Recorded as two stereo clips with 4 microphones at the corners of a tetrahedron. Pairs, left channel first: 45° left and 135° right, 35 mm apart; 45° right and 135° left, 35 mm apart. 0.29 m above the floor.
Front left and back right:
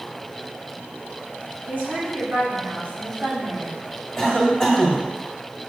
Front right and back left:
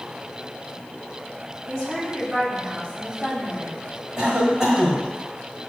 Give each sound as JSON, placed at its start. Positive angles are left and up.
{"t": 1.7, "sound": "a woman speaking", "azimuth_deg": -140, "distance_m": 1.9}
{"t": 4.2, "sound": "a cough", "azimuth_deg": 110, "distance_m": 1.5}